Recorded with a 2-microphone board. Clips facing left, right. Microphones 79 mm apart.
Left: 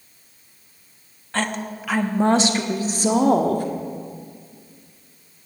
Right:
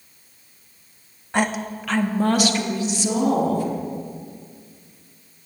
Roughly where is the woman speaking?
Centre.